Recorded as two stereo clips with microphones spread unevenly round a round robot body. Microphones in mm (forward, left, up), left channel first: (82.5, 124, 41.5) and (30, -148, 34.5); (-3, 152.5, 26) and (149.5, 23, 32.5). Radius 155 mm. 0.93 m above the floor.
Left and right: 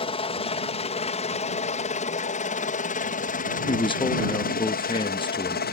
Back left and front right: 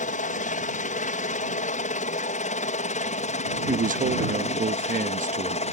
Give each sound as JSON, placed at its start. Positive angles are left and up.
{"t": 0.0, "sound": "a helicopter", "azimuth_deg": 140}
{"t": 3.7, "sound": "a man speaking", "azimuth_deg": 5}